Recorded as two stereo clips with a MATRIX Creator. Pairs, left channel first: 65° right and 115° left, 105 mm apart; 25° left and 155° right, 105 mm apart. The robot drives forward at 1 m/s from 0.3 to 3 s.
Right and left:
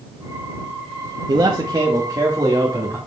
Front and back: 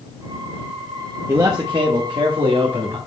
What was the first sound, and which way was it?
A man speaking, 140° left.